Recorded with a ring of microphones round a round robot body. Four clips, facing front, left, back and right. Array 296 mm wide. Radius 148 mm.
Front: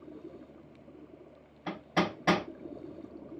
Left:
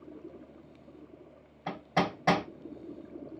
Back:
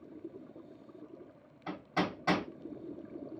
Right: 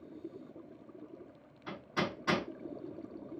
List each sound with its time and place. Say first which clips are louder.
1.7 s hammering: left 6 dB, front 3 dB; 75° left, 3.5 m